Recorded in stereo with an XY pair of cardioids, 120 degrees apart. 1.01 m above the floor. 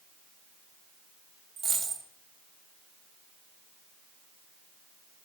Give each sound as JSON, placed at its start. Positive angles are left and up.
{"t": 1.6, "sound": "a dropped coin", "azimuth_deg": -45, "distance_m": 2.5}